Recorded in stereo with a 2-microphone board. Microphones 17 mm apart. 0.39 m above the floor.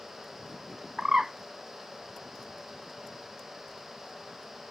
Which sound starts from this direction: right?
A bird, at 1.0 s.